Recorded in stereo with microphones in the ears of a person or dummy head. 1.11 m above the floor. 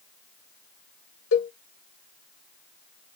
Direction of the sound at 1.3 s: 70° left (ahead or behind).